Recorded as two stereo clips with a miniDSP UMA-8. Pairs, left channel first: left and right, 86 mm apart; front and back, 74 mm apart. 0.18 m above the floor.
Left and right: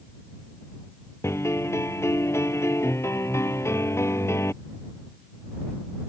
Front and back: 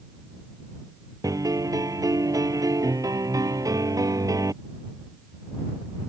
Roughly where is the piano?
Behind left.